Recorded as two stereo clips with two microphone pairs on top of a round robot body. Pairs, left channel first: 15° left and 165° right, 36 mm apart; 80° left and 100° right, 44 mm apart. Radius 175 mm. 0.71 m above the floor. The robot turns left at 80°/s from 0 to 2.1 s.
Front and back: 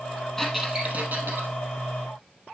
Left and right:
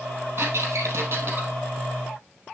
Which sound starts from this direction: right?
A squeak, at 0.4 s.